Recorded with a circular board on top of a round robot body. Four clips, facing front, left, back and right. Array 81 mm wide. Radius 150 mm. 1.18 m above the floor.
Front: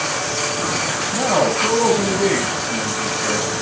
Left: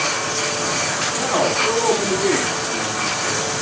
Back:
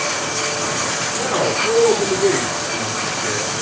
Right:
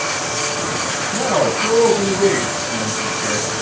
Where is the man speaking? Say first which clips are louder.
Right 3 dB, front 3 dB; 40° right, 7.5 m.